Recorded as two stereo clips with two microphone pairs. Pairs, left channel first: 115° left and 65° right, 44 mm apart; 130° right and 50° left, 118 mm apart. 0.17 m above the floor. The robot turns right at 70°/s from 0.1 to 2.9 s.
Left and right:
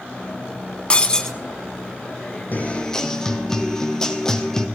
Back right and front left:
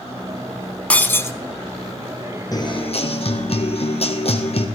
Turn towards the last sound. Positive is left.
turn(degrees=-165)